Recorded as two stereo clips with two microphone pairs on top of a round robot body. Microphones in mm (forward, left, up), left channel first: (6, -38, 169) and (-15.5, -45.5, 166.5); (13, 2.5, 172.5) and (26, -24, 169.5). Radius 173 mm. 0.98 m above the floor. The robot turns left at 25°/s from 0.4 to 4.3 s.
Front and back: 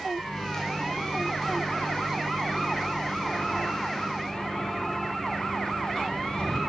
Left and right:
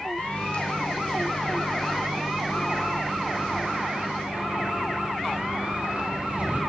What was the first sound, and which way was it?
A microwave, 75° left.